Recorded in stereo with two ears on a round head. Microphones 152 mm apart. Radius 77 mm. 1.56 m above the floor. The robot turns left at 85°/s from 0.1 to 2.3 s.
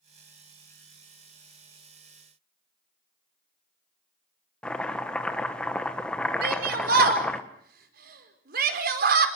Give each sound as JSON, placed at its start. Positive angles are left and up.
{"t": 4.6, "sound": "chopping", "side_deg": 5, "distance_m": 1.6}
{"t": 6.4, "sound": "a shout", "side_deg": -60, "distance_m": 5.0}